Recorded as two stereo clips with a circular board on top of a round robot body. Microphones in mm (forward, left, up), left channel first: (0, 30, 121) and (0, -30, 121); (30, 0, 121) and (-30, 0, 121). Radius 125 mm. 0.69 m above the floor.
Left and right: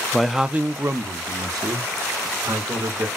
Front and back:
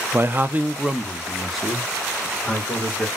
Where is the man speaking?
165° left, 0.6 m; by 3.1 s 80° right, 1.8 m.